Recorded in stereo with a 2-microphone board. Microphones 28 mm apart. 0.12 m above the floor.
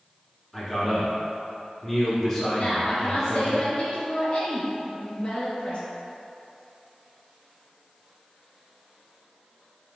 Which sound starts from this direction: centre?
A man speaking, at 0.5 s.